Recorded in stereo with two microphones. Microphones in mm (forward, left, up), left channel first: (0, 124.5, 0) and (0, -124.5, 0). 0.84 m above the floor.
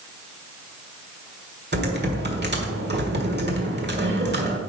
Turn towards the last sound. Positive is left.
turn(degrees=-40)  # may be behind; listen again after turning